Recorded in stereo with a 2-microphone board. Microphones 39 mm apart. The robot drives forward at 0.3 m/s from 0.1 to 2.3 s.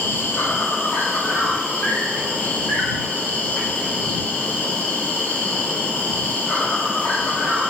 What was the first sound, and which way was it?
An insect, 60° left (ahead or behind).